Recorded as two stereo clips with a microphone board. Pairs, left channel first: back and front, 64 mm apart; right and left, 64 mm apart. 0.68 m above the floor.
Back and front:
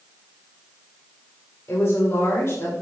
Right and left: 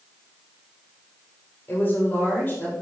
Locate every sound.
1.7 s a woman speaking: 140° right, 2.5 m